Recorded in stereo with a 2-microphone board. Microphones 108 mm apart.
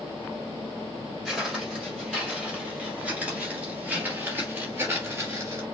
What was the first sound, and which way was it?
Footsteps, 5° right (ahead or behind).